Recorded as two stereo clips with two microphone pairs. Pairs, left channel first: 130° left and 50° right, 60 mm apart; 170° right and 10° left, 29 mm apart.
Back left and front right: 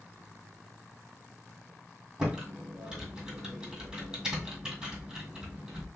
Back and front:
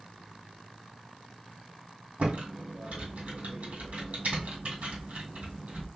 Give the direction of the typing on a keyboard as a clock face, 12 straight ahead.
11 o'clock.